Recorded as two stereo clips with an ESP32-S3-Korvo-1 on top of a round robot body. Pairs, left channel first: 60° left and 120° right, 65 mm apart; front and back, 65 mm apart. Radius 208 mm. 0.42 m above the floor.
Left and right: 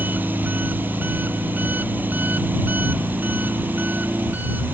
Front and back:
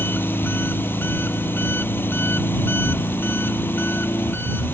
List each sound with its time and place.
0.0 s an engine running: 60° right